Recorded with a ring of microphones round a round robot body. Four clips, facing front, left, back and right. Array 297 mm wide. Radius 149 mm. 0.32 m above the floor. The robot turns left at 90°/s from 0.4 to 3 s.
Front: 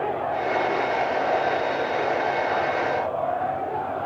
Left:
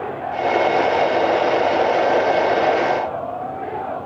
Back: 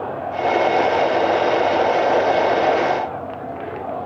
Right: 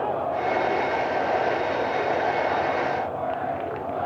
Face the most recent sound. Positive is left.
No sound to turn to.